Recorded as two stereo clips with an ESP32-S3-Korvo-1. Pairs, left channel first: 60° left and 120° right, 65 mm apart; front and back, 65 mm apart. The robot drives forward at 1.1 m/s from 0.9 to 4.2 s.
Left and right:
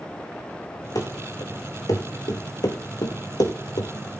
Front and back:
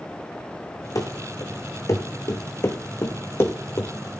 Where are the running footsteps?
35° left, 2.5 m; by 3.9 s 55° left, 2 m.